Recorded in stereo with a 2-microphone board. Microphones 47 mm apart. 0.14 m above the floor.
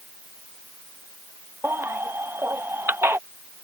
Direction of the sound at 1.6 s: 60° right (ahead or behind).